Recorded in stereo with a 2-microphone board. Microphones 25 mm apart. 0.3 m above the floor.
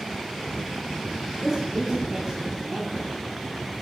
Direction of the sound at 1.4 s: Centre (ahead or behind).